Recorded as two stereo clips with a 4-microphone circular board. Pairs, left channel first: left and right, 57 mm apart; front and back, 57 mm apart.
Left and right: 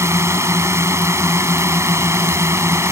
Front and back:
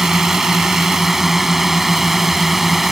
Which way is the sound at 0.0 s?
100° right.